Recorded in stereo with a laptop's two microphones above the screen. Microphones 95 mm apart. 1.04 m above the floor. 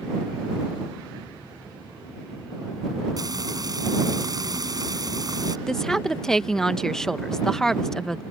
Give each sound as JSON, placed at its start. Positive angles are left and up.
{"t": 3.2, "sound": "frying", "side_deg": -45}
{"t": 5.7, "sound": "a woman speaking", "side_deg": 5}